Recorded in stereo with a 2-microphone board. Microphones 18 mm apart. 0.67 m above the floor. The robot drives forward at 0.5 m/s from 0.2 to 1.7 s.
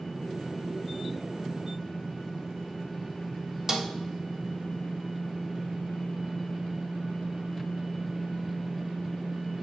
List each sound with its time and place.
3.7 s a snare drum: 30° right (ahead or behind), 1.4 m